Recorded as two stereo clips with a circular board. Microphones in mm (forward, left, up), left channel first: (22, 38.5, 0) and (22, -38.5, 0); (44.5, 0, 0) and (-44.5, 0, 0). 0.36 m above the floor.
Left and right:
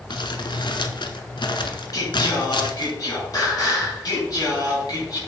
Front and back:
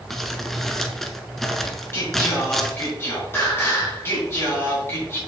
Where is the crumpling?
85° left, 0.9 m.